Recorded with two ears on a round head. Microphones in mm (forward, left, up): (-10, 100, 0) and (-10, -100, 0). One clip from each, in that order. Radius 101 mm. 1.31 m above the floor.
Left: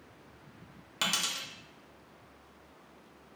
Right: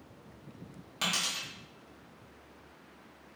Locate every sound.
1.0 s a dropped coin: 20° left (ahead or behind), 1.0 m